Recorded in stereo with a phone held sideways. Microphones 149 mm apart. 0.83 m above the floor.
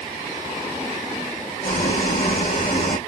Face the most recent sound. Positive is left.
turn(degrees=80)